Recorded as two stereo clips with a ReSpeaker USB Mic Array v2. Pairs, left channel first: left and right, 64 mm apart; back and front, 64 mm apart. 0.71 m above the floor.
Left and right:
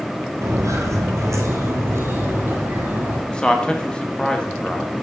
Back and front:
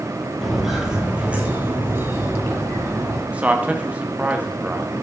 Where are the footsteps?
90° right, 1.1 m; by 3.2 s 35° right, 1.8 m.